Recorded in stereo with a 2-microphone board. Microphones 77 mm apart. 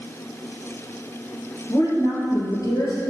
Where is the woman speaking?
50° left (ahead or behind), 3 m.